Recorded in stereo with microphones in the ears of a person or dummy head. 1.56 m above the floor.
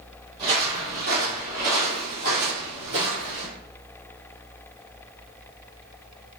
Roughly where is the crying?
No crying in this recording.